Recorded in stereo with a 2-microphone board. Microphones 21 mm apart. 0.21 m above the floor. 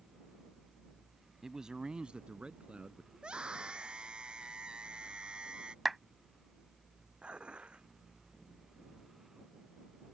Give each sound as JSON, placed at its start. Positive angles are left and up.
{"t": 1.4, "sound": "a man speaking", "side_deg": -25}
{"t": 3.1, "sound": "a scream", "side_deg": -35}
{"t": 5.8, "sound": "a clap", "side_deg": -10}
{"t": 7.2, "sound": "dishes clattering", "side_deg": -50}